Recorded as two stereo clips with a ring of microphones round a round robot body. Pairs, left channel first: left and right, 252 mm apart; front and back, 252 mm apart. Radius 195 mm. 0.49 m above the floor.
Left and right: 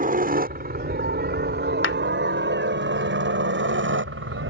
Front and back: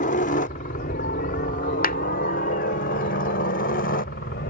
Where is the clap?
55° left.